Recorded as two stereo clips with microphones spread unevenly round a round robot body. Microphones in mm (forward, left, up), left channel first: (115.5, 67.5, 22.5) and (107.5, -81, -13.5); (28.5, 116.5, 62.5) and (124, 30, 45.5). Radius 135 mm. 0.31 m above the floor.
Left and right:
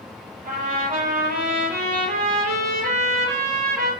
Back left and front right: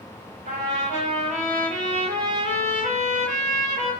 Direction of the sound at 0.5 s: 70° right.